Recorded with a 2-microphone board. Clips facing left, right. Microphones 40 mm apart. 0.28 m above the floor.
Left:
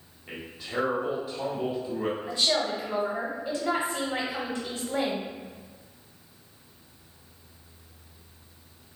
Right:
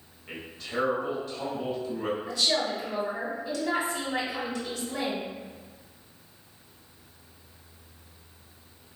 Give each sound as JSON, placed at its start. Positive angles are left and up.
{"t": 0.3, "sound": "a man speaking", "side_deg": 15, "distance_m": 1.2}
{"t": 2.3, "sound": "a woman speaking", "side_deg": 35, "distance_m": 1.1}